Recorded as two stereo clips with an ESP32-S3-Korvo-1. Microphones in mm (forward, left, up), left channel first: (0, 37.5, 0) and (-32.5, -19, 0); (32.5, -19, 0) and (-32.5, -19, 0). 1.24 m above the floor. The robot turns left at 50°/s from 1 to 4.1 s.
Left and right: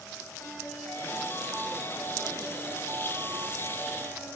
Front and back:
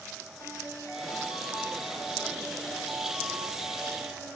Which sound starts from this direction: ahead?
A ringtone, at 0.4 s.